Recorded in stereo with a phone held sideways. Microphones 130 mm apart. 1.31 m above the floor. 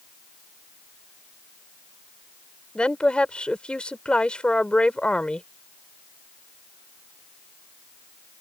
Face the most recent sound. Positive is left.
turn(degrees=5)  # may be behind; listen again after turning